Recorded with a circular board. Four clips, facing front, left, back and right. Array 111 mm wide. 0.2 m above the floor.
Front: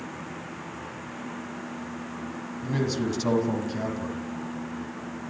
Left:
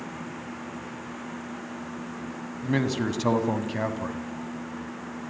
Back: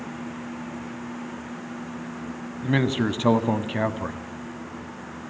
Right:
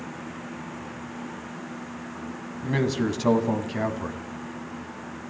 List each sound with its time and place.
2.6 s a man speaking: 175° left, 1.7 m